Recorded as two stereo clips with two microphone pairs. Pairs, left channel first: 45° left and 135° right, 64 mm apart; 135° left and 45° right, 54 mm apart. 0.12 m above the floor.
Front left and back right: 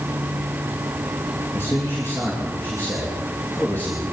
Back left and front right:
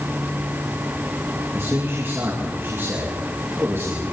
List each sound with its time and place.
1.5 s a man speaking: 5° right, 6 m; by 4.0 s 15° right, 8 m